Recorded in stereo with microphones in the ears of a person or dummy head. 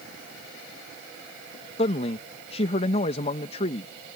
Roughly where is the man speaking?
Left.